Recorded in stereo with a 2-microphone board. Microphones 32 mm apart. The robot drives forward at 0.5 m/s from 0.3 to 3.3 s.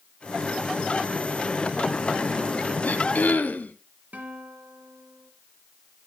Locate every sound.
2.8 s throat clearing: 60° left (ahead or behind), 1.1 m; by 3.8 s 70° left (ahead or behind), 1.0 m
4.1 s a guitar: 60° right (ahead or behind), 2 m